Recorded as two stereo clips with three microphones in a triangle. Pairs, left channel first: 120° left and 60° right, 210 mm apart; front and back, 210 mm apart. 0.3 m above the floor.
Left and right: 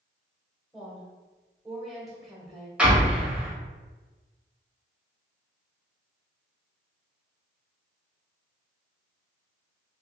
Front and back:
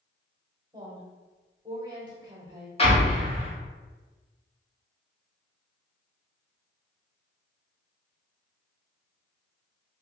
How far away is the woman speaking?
About 1.0 m.